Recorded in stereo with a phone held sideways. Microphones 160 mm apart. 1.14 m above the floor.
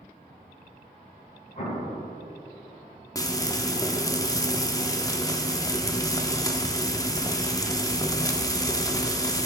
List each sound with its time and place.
1.6 s an explosion: 50° left (ahead or behind), 2.5 m
3.1 s frying: 25° left (ahead or behind), 0.7 m